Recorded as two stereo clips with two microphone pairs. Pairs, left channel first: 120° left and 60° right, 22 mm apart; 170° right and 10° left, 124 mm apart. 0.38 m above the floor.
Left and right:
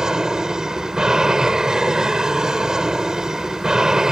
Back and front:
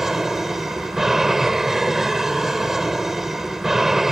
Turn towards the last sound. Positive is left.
turn(degrees=-75)